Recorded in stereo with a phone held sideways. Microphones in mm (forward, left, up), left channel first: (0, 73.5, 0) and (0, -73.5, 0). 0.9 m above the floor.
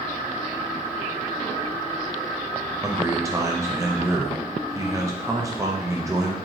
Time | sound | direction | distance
2.8 | a man speaking | 20° right (ahead or behind) | 0.6 m